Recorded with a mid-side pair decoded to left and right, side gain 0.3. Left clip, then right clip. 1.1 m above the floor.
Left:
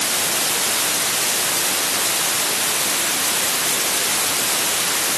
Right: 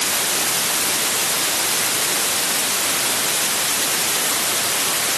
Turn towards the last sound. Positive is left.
No sound to turn to.